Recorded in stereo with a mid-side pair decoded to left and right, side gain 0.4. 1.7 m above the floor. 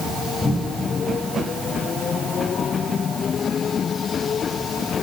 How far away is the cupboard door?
About 6 m.